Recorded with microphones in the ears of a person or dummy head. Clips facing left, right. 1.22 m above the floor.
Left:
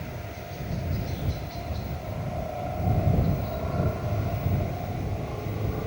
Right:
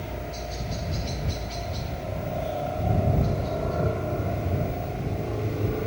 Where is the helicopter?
45° right (ahead or behind); by 5.9 s 30° right (ahead or behind).